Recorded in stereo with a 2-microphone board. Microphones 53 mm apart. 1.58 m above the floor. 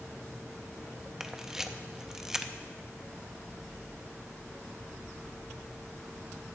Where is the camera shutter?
10° right (ahead or behind), 0.5 m.